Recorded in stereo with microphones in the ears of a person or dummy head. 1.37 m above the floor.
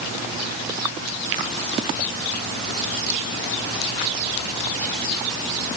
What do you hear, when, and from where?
Only background noise.